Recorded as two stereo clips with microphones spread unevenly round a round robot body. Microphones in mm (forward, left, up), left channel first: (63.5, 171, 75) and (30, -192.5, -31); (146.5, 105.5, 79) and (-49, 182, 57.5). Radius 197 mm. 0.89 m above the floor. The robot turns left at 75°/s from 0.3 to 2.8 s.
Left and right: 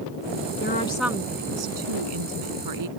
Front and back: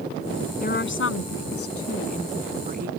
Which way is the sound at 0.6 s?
25° left.